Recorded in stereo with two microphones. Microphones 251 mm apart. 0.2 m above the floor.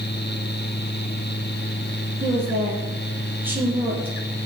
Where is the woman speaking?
5° right (ahead or behind), 6 m.